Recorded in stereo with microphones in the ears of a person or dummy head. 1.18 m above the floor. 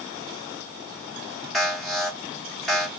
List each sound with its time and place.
1.5 s an alarm: centre (ahead or behind), 1.1 m